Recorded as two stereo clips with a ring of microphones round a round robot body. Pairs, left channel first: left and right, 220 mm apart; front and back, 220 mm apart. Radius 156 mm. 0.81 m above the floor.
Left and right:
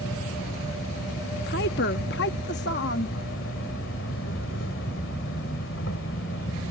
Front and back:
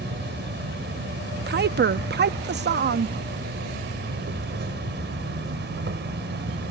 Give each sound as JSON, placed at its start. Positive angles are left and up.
{"t": 0.0, "sound": "an insect", "azimuth_deg": 145}
{"t": 1.5, "sound": "a woman speaking", "azimuth_deg": 140}